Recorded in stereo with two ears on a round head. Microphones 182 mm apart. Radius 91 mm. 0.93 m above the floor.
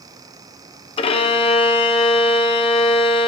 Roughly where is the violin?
Left.